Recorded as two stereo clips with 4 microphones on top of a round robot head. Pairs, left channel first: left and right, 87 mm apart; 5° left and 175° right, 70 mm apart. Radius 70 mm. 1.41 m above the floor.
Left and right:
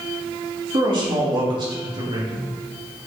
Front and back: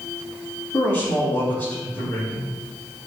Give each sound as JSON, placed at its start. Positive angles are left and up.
{"t": 0.7, "sound": "a man speaking", "azimuth_deg": -60, "distance_m": 3.5}